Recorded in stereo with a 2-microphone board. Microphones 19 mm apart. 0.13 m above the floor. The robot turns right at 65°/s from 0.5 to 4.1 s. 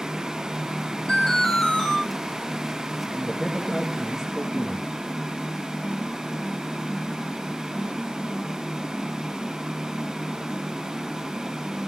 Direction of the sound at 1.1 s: 120° left.